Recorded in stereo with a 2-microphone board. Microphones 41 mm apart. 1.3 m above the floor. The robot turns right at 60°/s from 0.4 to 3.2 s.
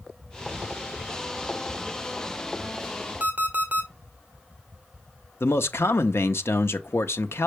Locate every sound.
3.2 s an alarm clock: 40° right (ahead or behind), 1.5 m
5.4 s a man speaking: 90° left, 0.8 m